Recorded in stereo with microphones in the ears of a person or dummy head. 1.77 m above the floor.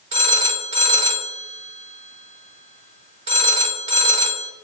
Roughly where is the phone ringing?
Right.